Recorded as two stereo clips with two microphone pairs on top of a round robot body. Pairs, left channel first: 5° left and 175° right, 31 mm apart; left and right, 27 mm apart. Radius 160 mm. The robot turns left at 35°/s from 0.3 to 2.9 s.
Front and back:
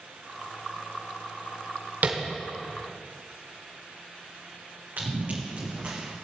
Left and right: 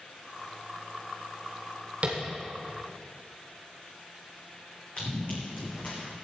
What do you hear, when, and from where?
2.0 s tapping: 145° right, 1.1 m; by 2.2 s 150° right, 1.1 m
5.0 s running footsteps: 140° left, 2.5 m; by 6.1 s 120° left, 2.5 m